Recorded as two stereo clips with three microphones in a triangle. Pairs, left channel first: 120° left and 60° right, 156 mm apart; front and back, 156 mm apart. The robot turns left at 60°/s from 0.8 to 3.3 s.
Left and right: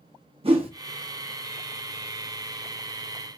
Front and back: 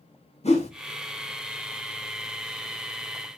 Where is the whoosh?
25° right, 0.8 m.